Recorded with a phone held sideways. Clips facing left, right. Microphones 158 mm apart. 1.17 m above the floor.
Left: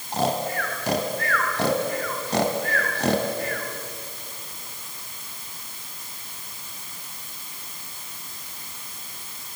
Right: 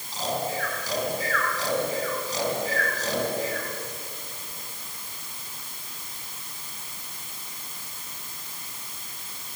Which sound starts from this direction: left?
Snoring, at 0.1 s.